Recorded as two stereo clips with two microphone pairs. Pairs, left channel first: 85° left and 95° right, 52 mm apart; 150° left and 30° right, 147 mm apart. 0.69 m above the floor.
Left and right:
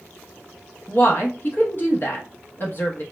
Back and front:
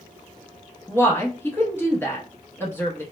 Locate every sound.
0.9 s a woman speaking: 75° left, 0.6 m